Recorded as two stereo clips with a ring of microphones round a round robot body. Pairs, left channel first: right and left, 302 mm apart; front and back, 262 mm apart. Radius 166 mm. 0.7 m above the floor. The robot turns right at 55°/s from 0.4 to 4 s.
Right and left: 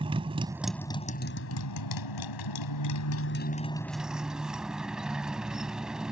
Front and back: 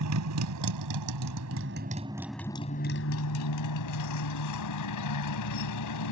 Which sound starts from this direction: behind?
A motorcycle, at 0.0 s.